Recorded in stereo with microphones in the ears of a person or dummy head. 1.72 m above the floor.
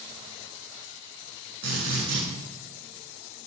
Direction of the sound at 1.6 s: 80° right.